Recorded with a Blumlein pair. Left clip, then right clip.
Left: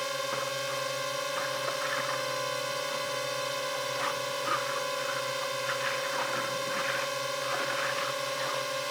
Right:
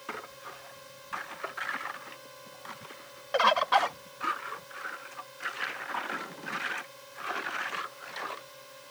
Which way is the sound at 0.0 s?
50° left.